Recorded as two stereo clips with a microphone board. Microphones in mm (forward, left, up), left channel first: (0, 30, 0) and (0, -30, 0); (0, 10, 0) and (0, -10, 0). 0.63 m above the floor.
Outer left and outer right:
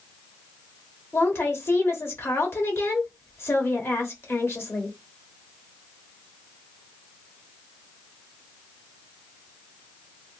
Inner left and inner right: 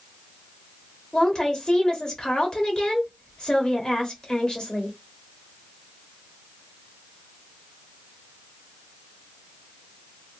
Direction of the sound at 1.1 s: 45° left (ahead or behind).